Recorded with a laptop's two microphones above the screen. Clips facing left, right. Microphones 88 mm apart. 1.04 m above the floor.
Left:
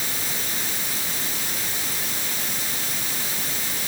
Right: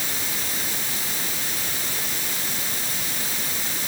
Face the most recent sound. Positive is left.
No sound to turn to.